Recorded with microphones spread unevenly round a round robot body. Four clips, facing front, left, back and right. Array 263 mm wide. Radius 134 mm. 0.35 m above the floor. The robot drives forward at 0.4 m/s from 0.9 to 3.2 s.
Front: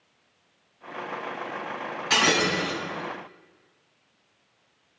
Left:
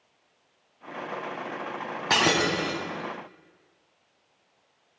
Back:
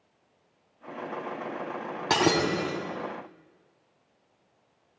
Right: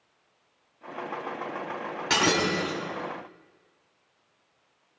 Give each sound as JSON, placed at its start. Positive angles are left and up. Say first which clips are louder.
{"t": 2.1, "sound": "breaking glass", "louder": "left 1 dB, even", "azimuth_deg": 155, "distance_m": 1.6}